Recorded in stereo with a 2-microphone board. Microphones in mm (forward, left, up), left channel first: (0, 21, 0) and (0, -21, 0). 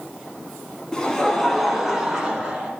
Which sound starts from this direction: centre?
Laughter, at 0.9 s.